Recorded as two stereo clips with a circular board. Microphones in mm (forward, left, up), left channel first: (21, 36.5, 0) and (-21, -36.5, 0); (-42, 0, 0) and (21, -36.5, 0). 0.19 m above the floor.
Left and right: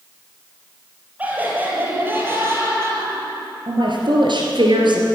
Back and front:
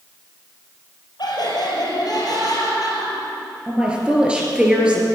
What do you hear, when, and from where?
1.2 s laughter: 170° left, 4 m; by 3.6 s 175° right, 4.5 m
3.7 s a woman speaking: 105° right, 3 m